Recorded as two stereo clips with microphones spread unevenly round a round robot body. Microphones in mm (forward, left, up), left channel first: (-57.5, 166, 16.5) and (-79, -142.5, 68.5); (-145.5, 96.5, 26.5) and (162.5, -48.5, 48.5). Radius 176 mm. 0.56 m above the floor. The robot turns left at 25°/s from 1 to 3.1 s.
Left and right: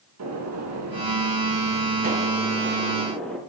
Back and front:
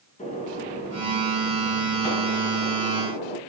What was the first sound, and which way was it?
A gunshot, 130° right.